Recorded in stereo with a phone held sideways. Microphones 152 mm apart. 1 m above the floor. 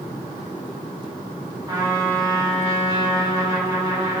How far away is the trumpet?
About 1.7 m.